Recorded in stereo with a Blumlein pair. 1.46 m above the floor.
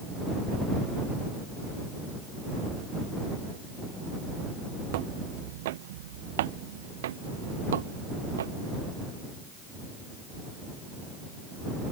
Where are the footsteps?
50° right; by 8.5 s 65° right.